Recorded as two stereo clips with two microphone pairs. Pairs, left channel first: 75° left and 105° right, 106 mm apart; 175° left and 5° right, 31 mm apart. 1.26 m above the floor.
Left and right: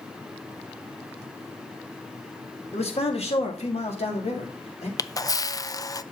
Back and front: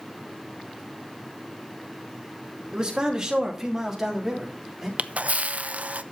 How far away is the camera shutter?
About 0.5 m.